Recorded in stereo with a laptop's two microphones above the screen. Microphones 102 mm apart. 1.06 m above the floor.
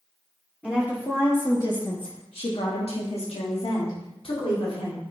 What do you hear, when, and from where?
0.6 s a woman speaking: 15° left (ahead or behind), 2 m; by 5.0 s 55° left (ahead or behind), 3 m